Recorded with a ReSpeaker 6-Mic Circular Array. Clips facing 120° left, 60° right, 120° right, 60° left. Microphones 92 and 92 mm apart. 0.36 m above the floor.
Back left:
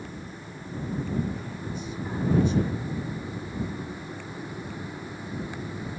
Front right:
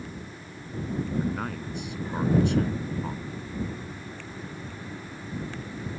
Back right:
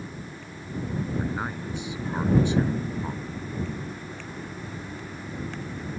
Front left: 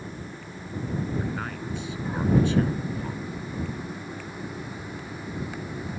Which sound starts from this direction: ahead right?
A man speaking, at 1.2 s.